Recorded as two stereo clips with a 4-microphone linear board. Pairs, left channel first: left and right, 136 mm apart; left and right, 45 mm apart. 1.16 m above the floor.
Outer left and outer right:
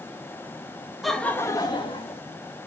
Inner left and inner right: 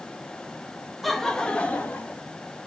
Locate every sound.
1.0 s laughter: centre (ahead or behind), 1.3 m; by 2.2 s 45° left (ahead or behind), 2 m